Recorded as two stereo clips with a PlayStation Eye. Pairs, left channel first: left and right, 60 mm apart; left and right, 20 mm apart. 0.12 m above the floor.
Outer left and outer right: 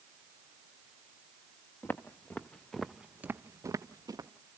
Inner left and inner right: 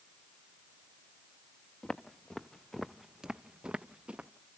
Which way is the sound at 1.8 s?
35° left (ahead or behind).